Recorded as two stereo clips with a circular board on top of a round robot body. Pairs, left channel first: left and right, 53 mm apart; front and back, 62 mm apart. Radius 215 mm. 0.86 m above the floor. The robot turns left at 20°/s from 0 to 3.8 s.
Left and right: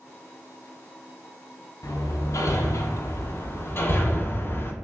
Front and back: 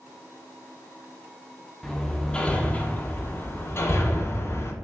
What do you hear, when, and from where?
1.8 s hammering: 85° left, 0.6 m; by 4.7 s 45° left, 0.6 m